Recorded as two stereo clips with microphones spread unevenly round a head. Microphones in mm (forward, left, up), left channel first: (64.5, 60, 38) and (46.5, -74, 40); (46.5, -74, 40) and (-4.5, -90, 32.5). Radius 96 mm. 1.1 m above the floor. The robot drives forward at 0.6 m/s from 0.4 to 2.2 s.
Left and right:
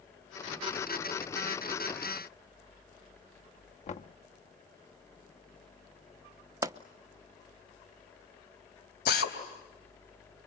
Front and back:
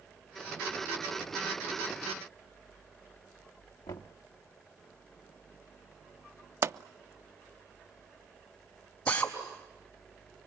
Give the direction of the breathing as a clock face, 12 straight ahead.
I don't hear breathing.